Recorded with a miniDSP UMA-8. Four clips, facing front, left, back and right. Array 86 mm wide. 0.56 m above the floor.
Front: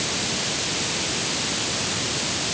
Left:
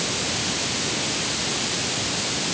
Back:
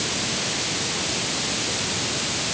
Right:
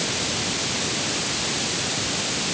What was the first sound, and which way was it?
Only background noise.